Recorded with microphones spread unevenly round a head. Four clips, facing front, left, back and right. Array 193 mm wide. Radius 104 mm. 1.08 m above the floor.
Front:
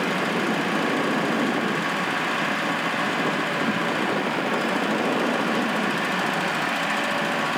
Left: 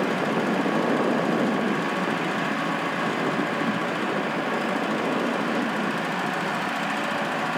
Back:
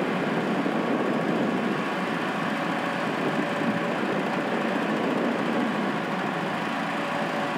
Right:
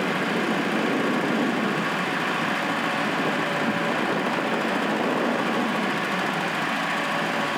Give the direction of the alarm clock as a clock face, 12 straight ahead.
No alarm clock in this recording.